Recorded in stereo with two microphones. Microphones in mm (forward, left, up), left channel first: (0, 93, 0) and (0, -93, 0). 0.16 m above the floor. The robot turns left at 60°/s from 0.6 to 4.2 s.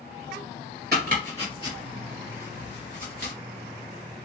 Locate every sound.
0.9 s chopping: 55° right (ahead or behind), 3 m; by 3.3 s 60° left (ahead or behind), 3 m